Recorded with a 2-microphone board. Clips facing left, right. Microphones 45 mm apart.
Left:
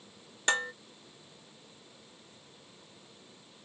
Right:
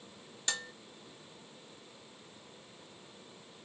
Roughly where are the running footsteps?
No running footsteps in this recording.